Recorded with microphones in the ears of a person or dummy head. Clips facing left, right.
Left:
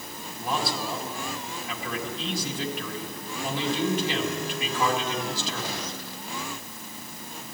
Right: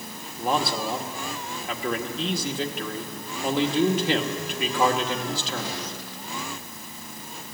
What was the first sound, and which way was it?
A man speaking, 50° right (ahead or behind).